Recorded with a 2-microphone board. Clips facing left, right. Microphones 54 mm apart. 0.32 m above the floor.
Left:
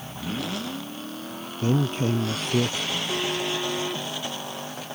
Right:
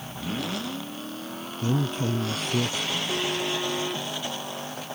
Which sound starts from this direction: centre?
A phone buzzing, at 2.9 s.